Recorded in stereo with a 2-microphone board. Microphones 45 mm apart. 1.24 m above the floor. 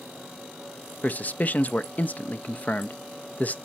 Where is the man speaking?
35° left (ahead or behind), 0.7 m.